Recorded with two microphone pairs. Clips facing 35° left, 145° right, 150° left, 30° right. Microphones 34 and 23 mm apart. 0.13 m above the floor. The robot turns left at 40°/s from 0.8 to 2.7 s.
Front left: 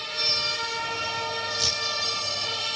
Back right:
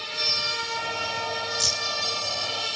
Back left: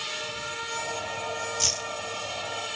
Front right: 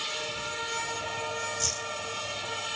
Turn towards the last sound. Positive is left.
turn(degrees=60)